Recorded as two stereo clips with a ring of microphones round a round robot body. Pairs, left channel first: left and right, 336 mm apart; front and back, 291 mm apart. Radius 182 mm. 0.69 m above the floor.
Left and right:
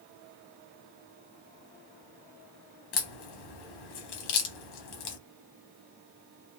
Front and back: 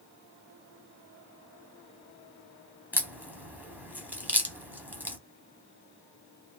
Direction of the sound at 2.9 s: 95° left.